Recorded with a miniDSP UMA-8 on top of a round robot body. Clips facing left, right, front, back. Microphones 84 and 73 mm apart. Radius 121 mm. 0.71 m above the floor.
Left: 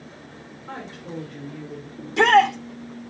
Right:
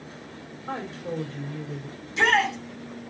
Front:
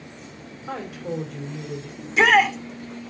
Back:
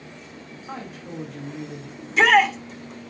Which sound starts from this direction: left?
A shout, at 2.0 s.